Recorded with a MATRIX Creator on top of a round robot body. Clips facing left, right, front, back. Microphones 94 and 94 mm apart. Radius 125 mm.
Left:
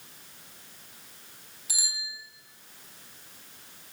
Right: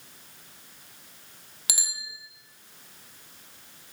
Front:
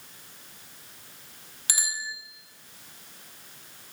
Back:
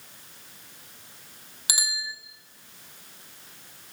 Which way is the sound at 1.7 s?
105° right.